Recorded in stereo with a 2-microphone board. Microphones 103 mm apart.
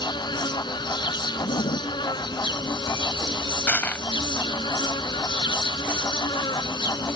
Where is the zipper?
85° left.